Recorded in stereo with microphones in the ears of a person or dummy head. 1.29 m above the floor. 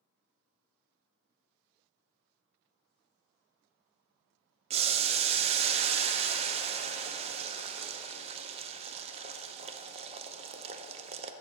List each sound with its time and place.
4.7 s boiling: 30° right (ahead or behind), 0.6 m